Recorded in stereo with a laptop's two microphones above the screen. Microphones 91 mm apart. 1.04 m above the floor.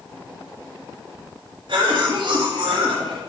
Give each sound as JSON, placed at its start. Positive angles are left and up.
{"t": 1.7, "sound": "a cough", "side_deg": -65, "distance_m": 1.8}